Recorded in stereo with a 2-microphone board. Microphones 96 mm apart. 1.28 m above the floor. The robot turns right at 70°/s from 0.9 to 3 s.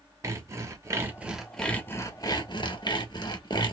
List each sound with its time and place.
0.2 s sawing: 40° right, 1.0 m; by 3.7 s 110° left, 1.0 m